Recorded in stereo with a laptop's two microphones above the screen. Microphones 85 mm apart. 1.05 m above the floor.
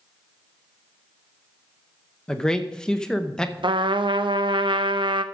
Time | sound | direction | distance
2.3 | a man speaking | 10° left (ahead or behind) | 0.7 m
3.6 | a trumpet | 75° right (ahead or behind) | 0.6 m